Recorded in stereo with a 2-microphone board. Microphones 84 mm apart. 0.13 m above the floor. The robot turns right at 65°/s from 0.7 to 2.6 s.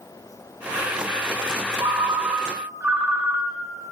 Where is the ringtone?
80° right, 1.3 m; by 3.9 s 25° right, 1.3 m.